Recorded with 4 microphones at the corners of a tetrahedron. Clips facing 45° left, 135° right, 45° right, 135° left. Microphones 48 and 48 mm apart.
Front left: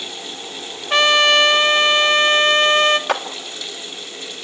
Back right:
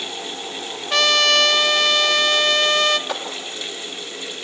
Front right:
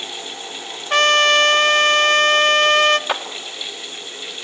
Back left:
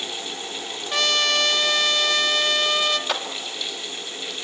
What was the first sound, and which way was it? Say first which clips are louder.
A trumpet: front left 3 dB, front right 8 dB; 15° right.